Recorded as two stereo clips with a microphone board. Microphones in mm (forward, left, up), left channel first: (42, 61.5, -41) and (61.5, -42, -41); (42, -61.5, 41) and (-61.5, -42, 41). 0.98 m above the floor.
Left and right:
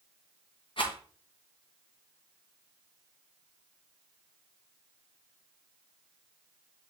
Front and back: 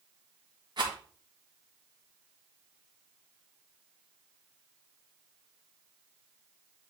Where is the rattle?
130° left, 2 m.